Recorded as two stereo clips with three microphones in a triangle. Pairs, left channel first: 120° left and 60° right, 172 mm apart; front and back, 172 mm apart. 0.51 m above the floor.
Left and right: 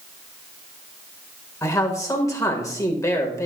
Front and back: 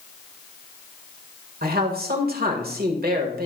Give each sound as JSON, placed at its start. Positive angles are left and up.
{"t": 1.6, "sound": "a man speaking", "azimuth_deg": -170, "distance_m": 1.3}